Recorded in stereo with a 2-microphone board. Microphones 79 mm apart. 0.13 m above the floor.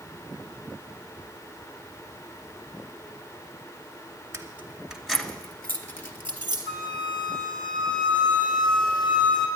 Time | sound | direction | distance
4.3 | keys jangling | 35° right (ahead or behind) | 1.0 m
6.7 | a flute | 80° left | 2 m